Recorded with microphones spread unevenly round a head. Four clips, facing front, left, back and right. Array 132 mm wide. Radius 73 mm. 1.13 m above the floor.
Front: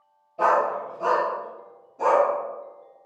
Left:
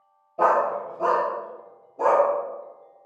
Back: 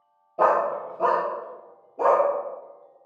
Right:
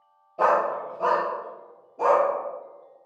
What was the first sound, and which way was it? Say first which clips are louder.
A dog barking: left 1 dB, even; 155° right.